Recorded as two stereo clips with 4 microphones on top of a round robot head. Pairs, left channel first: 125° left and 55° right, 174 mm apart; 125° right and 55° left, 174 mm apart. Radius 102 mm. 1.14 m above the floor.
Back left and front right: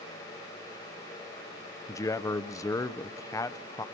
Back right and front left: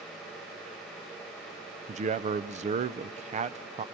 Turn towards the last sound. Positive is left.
turn(degrees=65)